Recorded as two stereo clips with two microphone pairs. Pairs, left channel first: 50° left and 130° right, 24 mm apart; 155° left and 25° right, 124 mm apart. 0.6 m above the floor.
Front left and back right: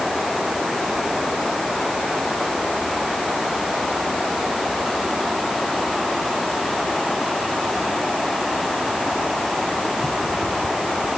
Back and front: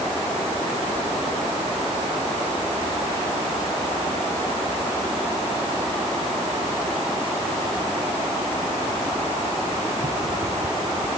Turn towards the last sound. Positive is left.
No sound to turn to.